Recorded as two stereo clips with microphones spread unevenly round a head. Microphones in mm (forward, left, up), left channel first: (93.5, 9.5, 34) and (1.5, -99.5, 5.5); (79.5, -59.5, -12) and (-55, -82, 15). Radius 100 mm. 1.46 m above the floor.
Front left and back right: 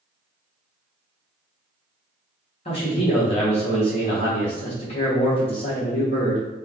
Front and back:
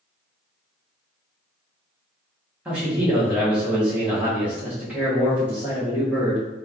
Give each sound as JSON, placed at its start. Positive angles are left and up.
{"t": 2.6, "sound": "a man speaking", "azimuth_deg": 110, "distance_m": 0.9}